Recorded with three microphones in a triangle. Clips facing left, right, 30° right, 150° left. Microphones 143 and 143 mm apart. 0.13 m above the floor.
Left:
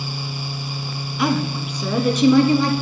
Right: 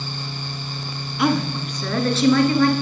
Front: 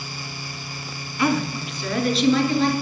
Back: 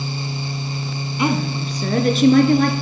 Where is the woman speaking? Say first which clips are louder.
Right 1 dB, back 1 dB; straight behind, 1.2 m; by 2.7 s 155° left, 2.0 m.